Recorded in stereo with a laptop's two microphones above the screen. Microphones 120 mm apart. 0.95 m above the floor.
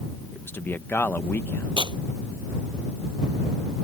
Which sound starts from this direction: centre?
A man speaking, at 0.3 s.